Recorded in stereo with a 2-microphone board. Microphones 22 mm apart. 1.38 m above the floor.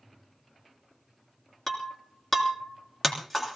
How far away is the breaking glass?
About 3.5 m.